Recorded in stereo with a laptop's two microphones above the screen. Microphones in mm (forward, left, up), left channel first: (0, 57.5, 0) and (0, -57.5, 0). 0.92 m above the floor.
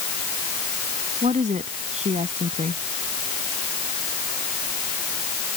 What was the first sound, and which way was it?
A woman speaking, 80° right.